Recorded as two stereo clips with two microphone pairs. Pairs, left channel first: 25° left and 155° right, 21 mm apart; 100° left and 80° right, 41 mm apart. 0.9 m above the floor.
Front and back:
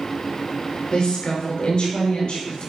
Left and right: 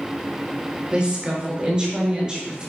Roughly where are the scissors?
No scissors in this recording.